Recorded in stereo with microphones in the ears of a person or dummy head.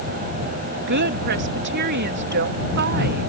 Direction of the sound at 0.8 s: 55° right (ahead or behind).